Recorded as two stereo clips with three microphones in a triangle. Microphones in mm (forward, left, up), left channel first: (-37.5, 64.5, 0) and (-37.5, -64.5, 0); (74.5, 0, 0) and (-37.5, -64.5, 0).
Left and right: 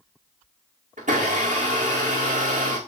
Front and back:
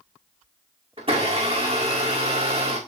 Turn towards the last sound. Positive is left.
turn(degrees=-110)